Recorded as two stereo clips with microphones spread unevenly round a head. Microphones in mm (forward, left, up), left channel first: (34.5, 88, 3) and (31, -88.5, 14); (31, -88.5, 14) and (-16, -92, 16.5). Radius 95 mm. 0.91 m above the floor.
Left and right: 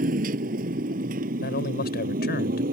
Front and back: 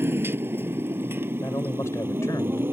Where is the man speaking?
55° left.